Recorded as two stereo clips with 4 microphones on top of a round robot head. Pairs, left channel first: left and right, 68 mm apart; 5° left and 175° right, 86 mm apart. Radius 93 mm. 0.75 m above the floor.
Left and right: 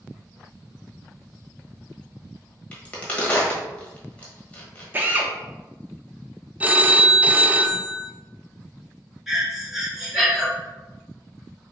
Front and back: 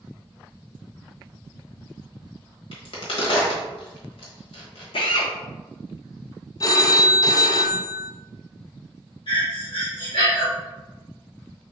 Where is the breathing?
5° right, 1.7 m.